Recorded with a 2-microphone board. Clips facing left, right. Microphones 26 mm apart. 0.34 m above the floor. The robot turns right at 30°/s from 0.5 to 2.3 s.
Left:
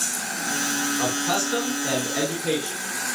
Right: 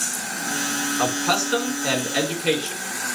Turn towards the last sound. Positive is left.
turn(degrees=-65)